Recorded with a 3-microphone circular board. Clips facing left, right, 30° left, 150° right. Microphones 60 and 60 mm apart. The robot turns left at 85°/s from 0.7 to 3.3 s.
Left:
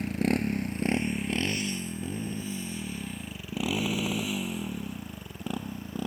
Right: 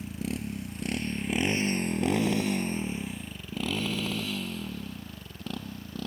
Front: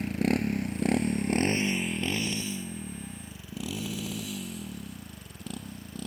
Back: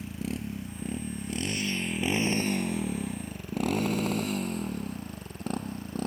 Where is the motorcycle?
60° left; by 6.1 s 165° left.